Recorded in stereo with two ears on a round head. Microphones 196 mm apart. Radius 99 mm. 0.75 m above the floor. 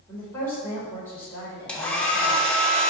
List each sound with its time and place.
0.1 s a woman speaking: 10° left (ahead or behind), 3 m
1.7 s a hair dryer: 5° left (ahead or behind), 1.5 m